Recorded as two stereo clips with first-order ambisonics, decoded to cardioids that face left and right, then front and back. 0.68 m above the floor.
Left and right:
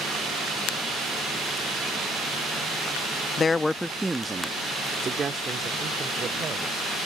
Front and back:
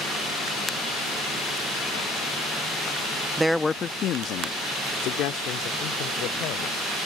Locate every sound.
3.4 s a man speaking: 115° left; by 6.9 s 25° right